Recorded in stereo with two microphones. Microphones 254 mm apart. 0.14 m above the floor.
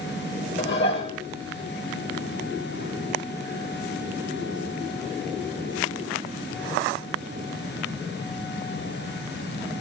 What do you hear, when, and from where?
0.6 s dishes clattering: 45° left (ahead or behind), 3 m